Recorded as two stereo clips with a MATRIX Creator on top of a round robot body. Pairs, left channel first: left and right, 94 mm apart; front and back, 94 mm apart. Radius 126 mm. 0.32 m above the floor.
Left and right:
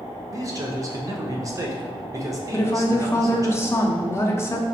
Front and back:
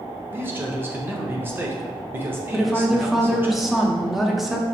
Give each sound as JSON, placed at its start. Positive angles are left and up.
{"t": 0.3, "sound": "a man speaking", "azimuth_deg": -125, "distance_m": 1.1}
{"t": 2.5, "sound": "a woman speaking", "azimuth_deg": 95, "distance_m": 0.9}